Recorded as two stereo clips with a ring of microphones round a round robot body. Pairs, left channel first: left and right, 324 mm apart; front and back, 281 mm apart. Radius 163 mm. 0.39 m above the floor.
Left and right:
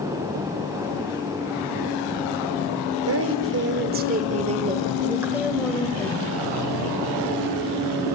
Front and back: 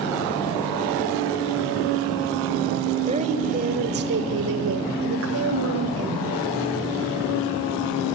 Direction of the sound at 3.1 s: 115° right.